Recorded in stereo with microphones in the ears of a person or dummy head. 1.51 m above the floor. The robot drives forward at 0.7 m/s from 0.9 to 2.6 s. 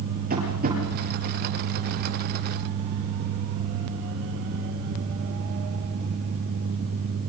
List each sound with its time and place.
0.3 s tapping: 40° right (ahead or behind), 8.5 m